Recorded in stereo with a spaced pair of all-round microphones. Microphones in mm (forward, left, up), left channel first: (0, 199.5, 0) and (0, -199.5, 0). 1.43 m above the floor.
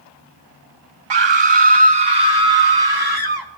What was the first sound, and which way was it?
A scream, 75° right (ahead or behind).